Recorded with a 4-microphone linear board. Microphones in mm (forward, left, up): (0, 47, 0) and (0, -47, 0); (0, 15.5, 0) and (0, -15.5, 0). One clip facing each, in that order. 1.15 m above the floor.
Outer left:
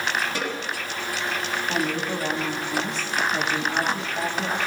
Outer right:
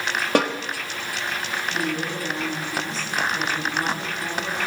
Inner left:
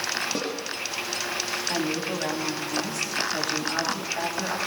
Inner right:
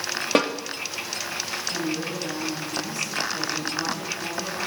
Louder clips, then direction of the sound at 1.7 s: Outer left 1 dB, inner left 1 dB; 85° left.